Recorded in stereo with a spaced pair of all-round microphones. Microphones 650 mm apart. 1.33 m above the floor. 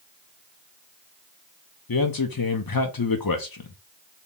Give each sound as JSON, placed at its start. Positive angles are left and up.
{"t": 1.9, "sound": "a man speaking", "side_deg": 35, "distance_m": 0.6}